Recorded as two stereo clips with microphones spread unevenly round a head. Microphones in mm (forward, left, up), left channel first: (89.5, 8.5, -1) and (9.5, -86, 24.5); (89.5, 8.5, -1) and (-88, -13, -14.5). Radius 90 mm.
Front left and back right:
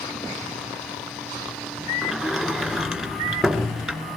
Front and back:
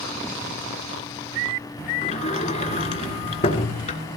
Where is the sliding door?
45° right, 2.5 m.